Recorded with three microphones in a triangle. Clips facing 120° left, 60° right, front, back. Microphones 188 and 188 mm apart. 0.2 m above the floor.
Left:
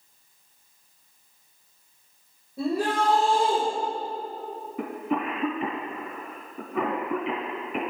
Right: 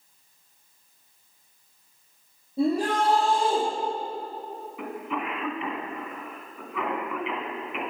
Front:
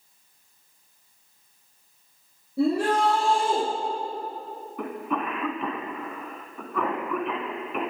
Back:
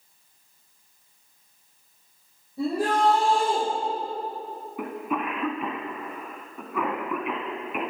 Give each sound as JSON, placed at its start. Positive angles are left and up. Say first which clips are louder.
{"t": 2.6, "sound": "a shout", "louder": "right 2 dB, front 2 dB", "azimuth_deg": 0, "distance_m": 4.5}
{"t": 4.8, "sound": "a cough", "louder": "left 5 dB, even", "azimuth_deg": 100, "distance_m": 1.5}